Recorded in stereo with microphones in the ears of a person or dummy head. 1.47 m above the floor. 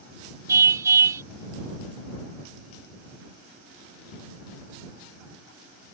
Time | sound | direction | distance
0.5 | a car horn | 15° right (ahead or behind) | ?